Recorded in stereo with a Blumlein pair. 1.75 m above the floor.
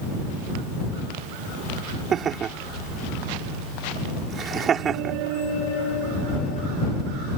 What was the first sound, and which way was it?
Laughter, 25° right.